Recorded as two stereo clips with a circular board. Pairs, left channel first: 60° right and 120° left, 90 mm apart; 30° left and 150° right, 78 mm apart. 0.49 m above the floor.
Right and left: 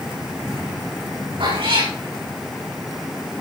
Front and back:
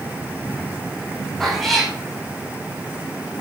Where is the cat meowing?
120° left, 6.5 m.